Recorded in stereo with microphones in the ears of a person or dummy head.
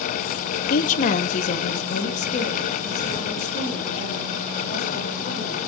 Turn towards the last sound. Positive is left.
turn(degrees=40)  # may be behind; listen again after turning